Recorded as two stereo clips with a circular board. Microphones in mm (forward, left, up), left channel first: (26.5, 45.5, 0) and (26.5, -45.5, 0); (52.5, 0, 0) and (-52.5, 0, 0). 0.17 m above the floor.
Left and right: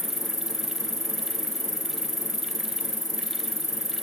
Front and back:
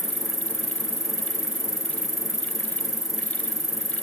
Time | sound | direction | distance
0.0 | an insect | 50° left | ?